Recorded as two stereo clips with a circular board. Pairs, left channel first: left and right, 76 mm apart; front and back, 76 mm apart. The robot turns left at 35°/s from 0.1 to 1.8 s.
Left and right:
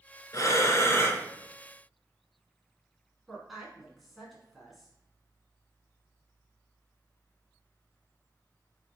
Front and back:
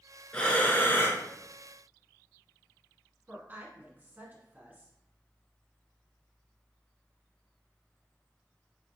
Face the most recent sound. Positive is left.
turn(degrees=-175)